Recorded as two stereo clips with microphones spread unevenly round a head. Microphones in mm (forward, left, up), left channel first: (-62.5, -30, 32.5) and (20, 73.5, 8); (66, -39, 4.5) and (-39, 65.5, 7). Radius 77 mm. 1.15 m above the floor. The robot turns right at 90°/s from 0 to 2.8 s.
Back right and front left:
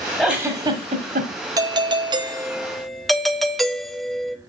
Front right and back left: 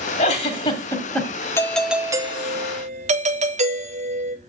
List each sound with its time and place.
0.2 s a giggle: 55° right, 1.2 m; by 1.3 s 45° left, 1.2 m
1.6 s a doorbell: 20° left, 0.6 m; by 4.4 s 130° left, 0.6 m